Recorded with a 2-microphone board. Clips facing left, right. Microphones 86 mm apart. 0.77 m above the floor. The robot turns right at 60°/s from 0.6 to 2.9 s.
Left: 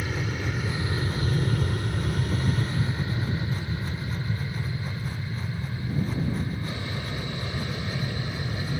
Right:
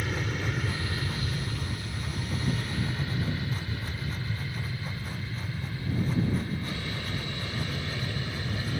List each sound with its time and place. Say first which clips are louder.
0.0 s an aircraft: left 1 dB; 5° left (ahead or behind); by 8.8 s 15° left (ahead or behind)